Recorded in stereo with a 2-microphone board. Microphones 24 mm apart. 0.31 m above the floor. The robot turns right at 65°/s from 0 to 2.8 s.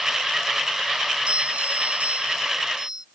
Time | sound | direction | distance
1.3 | a doorbell | 130° right | ?